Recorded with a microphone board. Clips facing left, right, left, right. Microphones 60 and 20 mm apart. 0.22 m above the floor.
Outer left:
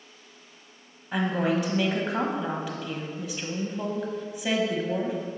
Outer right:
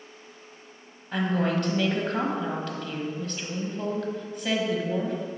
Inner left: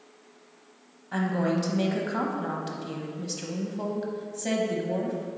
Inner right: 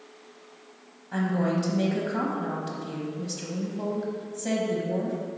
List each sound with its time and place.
1.1 s a woman speaking: 10° left (ahead or behind), 1.0 m